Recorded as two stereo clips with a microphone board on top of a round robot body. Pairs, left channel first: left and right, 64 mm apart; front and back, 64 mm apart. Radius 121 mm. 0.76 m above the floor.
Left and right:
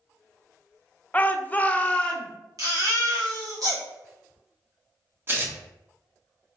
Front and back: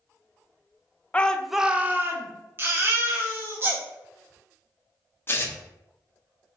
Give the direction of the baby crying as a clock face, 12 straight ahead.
4 o'clock.